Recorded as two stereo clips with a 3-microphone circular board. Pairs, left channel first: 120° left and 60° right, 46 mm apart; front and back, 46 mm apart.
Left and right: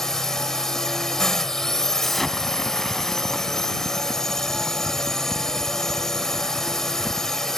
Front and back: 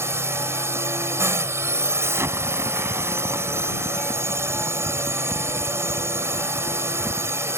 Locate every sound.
0.0 s a drone: 160° right
2.0 s an explosion: 155° right